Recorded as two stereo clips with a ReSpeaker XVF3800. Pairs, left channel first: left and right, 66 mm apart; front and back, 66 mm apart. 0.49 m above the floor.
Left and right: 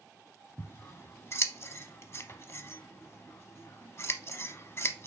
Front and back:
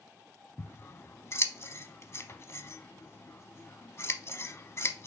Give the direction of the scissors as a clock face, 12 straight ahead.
11 o'clock.